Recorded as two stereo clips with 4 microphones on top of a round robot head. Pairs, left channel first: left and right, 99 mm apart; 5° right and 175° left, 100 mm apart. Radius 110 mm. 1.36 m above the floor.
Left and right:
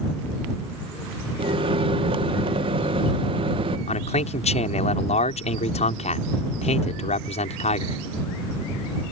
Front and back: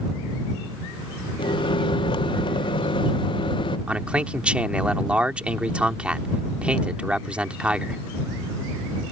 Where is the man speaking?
95° left.